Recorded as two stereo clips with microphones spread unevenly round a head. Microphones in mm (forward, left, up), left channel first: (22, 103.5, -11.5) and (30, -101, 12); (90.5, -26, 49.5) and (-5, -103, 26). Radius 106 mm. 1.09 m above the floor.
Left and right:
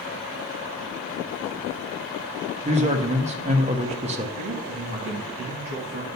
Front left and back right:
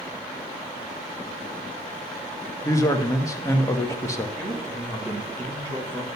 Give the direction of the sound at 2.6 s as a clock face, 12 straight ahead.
1 o'clock.